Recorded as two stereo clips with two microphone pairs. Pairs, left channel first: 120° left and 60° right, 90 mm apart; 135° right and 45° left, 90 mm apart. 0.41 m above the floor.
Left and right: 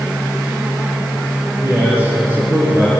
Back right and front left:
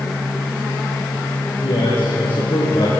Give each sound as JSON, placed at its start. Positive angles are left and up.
{"t": 1.6, "sound": "a man speaking", "azimuth_deg": -125, "distance_m": 8.5}